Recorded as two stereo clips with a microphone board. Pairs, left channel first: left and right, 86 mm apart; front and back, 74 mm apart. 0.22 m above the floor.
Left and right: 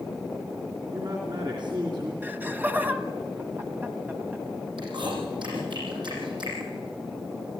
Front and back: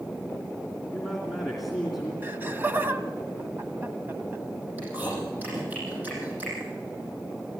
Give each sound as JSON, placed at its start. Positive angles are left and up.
{"t": 0.9, "sound": "a man speaking", "azimuth_deg": -90, "distance_m": 2.5}
{"t": 2.2, "sound": "laughter", "azimuth_deg": -140, "distance_m": 1.3}
{"t": 4.8, "sound": "chewing", "azimuth_deg": -115, "distance_m": 7.5}